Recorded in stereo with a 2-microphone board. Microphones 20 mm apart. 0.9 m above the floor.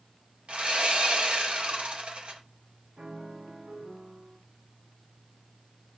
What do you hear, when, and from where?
0.5 s sawing: 65° right (ahead or behind), 1.9 m
3.0 s a piano: 60° right (ahead or behind), 2.5 m